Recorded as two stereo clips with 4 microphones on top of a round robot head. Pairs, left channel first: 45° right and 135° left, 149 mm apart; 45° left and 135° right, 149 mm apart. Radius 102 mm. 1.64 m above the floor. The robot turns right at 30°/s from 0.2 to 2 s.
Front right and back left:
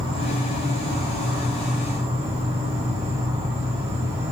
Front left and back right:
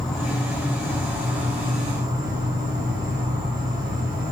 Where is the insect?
130° left, 1.9 m; by 4.3 s 175° right, 1.9 m.